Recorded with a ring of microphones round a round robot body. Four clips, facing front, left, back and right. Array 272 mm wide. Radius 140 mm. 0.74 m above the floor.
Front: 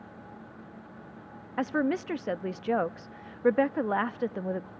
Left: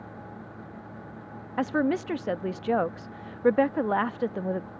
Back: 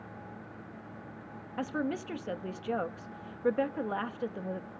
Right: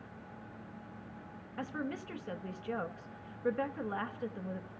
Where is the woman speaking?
65° left, 0.7 m.